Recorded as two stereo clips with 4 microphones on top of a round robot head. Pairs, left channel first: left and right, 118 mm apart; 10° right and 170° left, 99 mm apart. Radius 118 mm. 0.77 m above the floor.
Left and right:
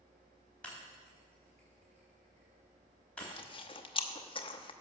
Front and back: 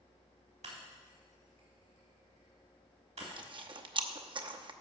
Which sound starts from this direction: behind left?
Chewing, at 3.2 s.